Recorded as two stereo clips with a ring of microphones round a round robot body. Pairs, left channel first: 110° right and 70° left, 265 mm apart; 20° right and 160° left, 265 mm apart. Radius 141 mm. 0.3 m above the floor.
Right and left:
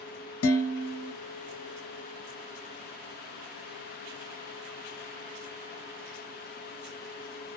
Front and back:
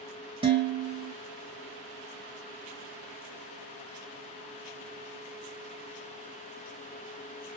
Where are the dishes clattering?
135° right, 1.2 m.